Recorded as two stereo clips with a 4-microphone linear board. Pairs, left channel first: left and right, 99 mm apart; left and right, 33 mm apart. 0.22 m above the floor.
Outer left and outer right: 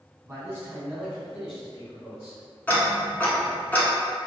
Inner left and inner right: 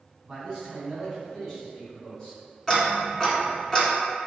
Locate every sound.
0.2 s a man speaking: 30° right (ahead or behind), 1.3 m; by 2.4 s 25° left (ahead or behind), 1.4 m
2.7 s ticking: 15° left (ahead or behind), 0.7 m